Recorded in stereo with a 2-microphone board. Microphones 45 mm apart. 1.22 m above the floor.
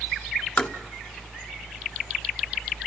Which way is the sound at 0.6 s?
45° left (ahead or behind).